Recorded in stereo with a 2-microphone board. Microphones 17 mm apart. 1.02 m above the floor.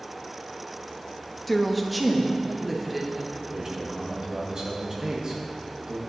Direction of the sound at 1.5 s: 5° left (ahead or behind).